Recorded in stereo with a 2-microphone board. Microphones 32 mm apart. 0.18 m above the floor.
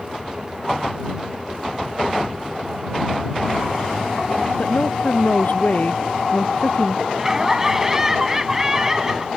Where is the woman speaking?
55° left (ahead or behind).